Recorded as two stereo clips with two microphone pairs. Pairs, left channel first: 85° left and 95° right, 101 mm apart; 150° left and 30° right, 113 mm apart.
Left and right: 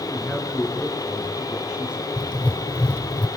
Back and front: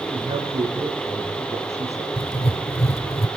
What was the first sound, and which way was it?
A man speaking, 15° right.